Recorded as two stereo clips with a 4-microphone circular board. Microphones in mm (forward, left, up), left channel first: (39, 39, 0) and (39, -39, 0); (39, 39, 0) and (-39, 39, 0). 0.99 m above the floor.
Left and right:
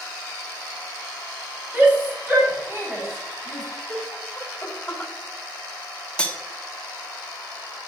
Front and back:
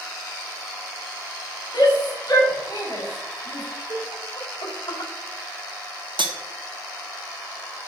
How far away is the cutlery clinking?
About 1.0 m.